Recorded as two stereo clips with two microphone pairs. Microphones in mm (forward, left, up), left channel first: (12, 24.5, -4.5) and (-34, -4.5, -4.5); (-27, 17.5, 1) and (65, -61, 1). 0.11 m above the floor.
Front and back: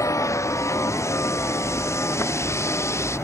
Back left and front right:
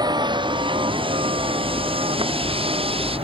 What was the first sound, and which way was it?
A vehicle, 15° left.